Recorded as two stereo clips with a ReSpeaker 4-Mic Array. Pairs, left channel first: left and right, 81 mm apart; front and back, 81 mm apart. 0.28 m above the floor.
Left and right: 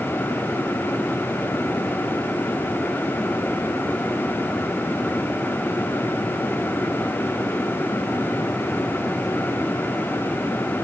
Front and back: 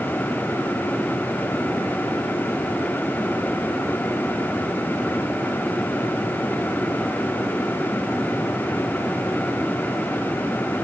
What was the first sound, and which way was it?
Only background noise.